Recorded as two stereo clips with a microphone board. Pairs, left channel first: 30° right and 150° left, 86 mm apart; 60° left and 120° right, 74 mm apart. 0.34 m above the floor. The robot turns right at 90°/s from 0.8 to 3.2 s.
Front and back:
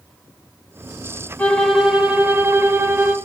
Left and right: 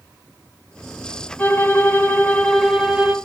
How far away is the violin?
About 0.8 m.